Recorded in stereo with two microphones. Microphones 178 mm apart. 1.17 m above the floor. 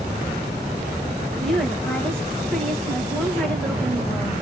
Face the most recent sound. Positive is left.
turn(degrees=5)  # may be behind; listen again after turning